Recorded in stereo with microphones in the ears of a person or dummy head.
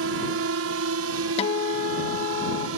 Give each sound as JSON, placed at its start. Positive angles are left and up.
{"t": 0.0, "sound": "a drone", "side_deg": -65}
{"t": 1.4, "sound": "a guitar", "side_deg": 30}